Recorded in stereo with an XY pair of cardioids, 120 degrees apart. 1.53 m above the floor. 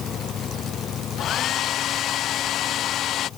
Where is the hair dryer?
60° left.